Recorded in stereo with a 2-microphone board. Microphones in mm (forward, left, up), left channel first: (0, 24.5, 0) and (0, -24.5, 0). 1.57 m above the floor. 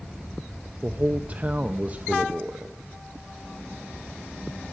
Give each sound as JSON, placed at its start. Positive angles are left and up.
{"t": 0.8, "sound": "a man speaking", "side_deg": -30, "distance_m": 0.5}